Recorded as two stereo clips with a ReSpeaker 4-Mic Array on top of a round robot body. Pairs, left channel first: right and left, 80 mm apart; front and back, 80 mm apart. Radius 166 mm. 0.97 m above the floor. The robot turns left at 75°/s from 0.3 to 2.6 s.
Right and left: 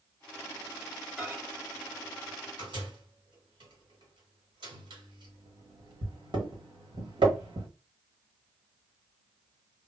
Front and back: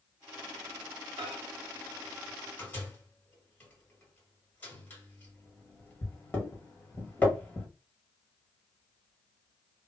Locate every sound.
1.2 s a microwave: 175° left, 1.1 m; by 7.7 s 70° left, 1.1 m